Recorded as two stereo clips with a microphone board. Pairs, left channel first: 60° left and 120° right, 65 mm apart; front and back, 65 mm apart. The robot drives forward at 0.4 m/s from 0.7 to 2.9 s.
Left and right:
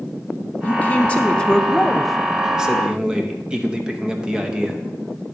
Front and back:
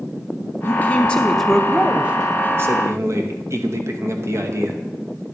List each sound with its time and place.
0.6 s a man speaking: 25° left, 0.6 m; by 4.8 s 165° left, 0.8 m